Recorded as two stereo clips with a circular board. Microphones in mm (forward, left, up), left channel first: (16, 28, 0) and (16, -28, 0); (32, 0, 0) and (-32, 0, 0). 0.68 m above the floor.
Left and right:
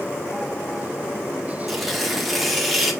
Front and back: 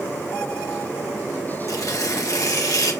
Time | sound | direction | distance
1.7 | tearing paper | straight ahead | 1.9 m